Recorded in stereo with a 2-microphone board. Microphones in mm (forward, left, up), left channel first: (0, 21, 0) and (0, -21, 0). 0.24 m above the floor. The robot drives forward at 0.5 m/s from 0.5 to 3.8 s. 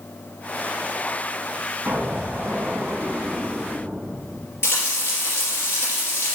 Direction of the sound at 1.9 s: 50° right (ahead or behind).